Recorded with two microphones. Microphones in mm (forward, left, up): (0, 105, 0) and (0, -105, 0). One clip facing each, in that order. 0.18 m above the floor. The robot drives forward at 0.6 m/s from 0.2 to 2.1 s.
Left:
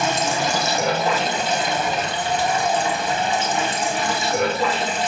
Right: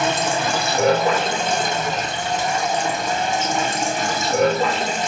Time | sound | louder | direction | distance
0.0 | running water | right 1 dB | 60° right (ahead or behind) | 3 m